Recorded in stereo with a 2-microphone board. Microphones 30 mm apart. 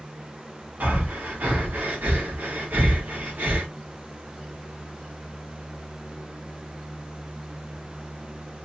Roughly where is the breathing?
Right.